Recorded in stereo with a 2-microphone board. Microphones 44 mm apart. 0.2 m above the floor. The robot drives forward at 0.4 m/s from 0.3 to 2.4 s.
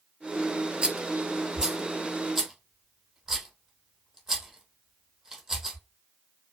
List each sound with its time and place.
0.8 s a rattle: 20° right (ahead or behind), 0.6 m; by 5.8 s 10° right (ahead or behind), 1.2 m